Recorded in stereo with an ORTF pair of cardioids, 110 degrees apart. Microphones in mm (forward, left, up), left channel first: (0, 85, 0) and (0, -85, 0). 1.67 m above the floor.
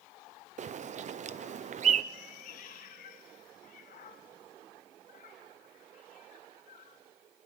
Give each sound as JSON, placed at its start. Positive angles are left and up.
{"t": 0.6, "sound": "a bird", "azimuth_deg": -45, "distance_m": 0.8}
{"t": 2.1, "sound": "a cat meowing", "azimuth_deg": 60, "distance_m": 4.5}